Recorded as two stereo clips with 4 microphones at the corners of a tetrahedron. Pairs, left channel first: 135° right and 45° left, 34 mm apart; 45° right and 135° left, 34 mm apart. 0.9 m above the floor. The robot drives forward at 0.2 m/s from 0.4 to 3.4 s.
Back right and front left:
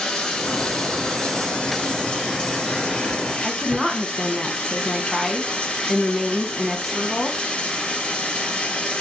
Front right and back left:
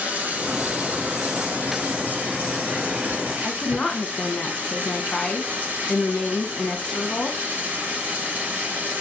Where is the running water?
155° left, 1.2 m; by 9.0 s 165° left, 1.7 m.